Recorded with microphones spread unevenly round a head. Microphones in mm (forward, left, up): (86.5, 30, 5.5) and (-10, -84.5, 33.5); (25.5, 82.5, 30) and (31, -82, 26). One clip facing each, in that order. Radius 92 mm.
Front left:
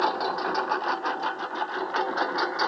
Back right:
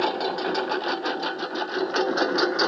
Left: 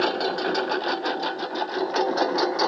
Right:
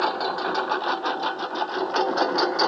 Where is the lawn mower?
160° left; by 2.7 s straight behind.